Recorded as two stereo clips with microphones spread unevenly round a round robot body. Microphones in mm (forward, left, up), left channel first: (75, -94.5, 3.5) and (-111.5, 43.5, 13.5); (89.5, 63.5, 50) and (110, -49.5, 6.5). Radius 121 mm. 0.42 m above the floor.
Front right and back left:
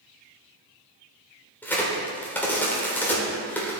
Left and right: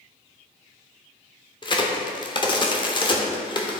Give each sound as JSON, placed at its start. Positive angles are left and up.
{"t": 1.6, "sound": "a crack", "azimuth_deg": 40, "distance_m": 1.4}